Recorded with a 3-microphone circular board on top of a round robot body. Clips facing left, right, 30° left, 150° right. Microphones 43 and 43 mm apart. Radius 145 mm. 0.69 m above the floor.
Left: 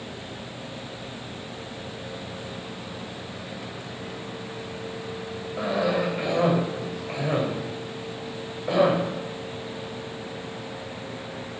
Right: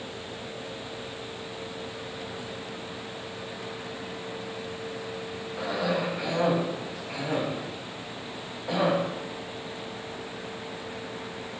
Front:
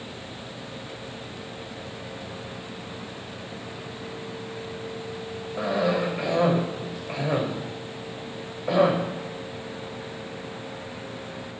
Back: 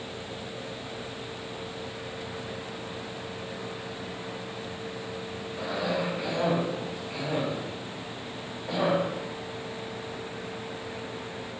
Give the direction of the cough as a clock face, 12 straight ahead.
11 o'clock.